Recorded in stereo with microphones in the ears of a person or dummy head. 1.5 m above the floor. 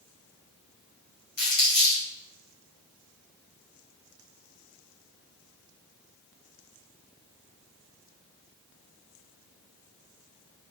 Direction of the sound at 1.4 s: 50° left (ahead or behind).